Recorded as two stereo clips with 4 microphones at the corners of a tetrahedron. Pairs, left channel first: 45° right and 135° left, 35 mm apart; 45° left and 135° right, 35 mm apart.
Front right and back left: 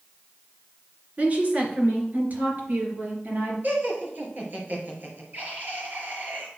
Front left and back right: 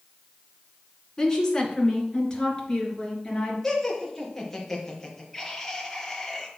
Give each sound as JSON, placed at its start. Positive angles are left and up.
{"t": 1.2, "sound": "a woman speaking", "azimuth_deg": 110, "distance_m": 2.5}
{"t": 3.6, "sound": "laughter", "azimuth_deg": 125, "distance_m": 3.0}